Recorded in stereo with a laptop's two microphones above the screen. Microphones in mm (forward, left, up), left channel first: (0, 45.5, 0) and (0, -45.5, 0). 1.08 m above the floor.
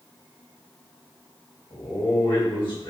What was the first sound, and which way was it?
A man speaking, 60° left (ahead or behind).